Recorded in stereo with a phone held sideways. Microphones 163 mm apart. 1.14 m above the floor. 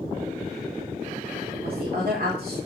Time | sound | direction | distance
1.6 | a woman speaking | 65° right (ahead or behind) | 4 m